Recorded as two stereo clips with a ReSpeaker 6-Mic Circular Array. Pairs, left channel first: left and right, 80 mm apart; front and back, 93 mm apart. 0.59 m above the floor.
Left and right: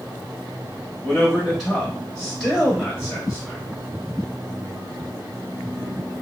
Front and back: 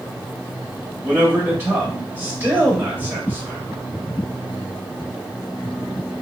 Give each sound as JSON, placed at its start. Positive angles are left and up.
{"t": 1.0, "sound": "a man speaking", "azimuth_deg": 160, "distance_m": 1.1}